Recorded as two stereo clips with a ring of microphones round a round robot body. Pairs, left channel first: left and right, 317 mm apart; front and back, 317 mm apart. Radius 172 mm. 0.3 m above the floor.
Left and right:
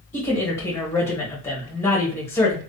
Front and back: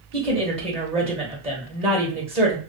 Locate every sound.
0.1 s a woman speaking: 155° left, 1.1 m